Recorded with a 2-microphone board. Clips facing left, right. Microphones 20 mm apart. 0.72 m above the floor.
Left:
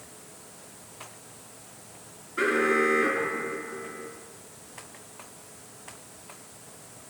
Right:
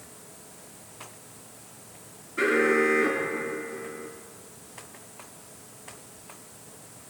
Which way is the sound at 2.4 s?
10° left (ahead or behind).